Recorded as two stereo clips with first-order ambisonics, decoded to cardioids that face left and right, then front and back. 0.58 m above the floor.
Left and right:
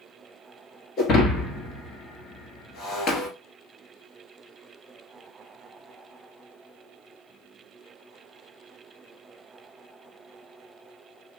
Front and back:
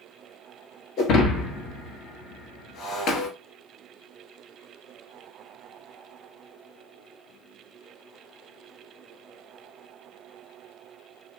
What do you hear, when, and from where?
1.0 s breaking glass: 40° left, 1.2 m